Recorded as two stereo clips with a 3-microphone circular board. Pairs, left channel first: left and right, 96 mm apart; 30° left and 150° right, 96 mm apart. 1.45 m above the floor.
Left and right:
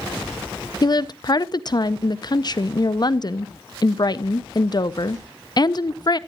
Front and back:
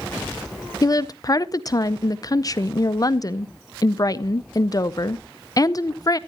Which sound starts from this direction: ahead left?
A woman speaking, at 0.8 s.